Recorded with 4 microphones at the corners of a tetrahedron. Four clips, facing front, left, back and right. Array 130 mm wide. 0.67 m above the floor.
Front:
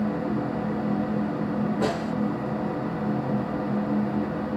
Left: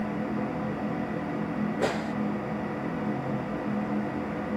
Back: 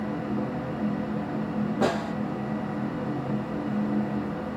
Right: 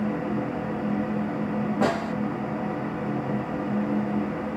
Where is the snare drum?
110° right, 2 m.